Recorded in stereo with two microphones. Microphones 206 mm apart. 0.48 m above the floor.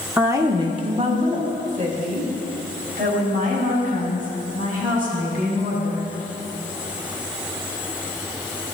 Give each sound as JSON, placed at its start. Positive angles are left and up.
{"t": 0.2, "sound": "a woman speaking", "side_deg": -10, "distance_m": 0.7}